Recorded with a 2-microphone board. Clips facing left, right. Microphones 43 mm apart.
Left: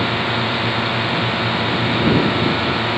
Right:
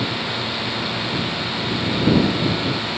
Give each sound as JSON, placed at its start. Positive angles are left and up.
{"t": 0.0, "sound": "a drone", "side_deg": 25}